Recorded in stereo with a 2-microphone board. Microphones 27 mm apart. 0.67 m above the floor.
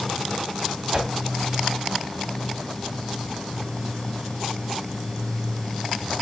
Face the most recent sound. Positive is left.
turn(degrees=-35)  # may be behind; listen again after turning